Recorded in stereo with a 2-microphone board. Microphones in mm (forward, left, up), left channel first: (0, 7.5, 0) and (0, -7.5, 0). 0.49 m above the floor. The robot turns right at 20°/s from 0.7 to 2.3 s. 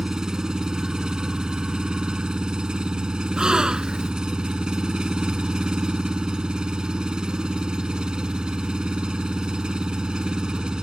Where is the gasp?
70° right (ahead or behind).